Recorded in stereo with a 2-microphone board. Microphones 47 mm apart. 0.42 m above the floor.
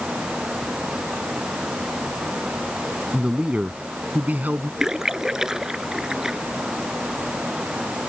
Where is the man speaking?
20° right (ahead or behind); by 4.7 s 45° right (ahead or behind).